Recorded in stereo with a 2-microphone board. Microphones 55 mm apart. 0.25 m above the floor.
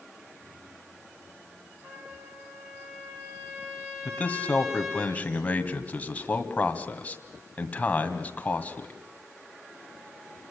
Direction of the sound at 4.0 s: 25° left (ahead or behind).